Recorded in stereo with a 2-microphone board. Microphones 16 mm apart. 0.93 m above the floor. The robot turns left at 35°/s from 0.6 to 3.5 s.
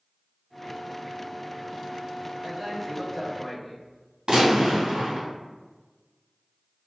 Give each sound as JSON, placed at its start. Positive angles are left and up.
{"t": 2.4, "sound": "a man speaking", "azimuth_deg": -130, "distance_m": 1.3}
{"t": 4.3, "sound": "a gunshot", "side_deg": -65, "distance_m": 1.8}